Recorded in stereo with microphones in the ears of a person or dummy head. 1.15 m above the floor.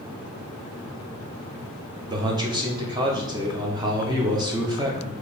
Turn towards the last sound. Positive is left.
turn(degrees=-15)  # may be behind; listen again after turning